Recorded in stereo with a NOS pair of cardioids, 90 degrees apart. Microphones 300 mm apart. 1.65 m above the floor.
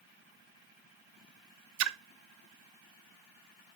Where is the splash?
70° right, 0.7 m.